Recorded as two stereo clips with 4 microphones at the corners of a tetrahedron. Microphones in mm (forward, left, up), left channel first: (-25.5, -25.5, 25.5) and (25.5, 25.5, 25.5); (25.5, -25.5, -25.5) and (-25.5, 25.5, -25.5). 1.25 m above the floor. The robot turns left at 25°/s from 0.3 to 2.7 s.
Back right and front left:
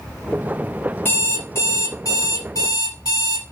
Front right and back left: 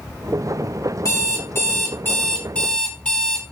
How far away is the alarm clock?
About 0.8 m.